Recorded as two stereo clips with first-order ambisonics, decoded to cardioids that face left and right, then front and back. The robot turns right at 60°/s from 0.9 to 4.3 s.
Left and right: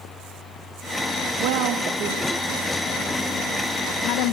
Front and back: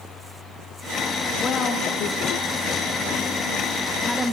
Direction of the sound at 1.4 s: 75° right.